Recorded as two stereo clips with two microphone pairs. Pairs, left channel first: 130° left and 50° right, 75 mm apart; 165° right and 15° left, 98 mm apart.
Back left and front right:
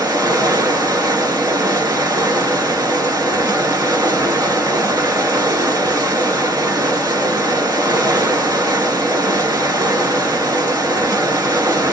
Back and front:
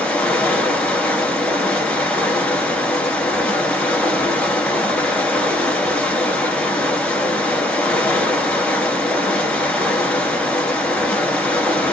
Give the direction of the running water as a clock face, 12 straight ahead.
3 o'clock.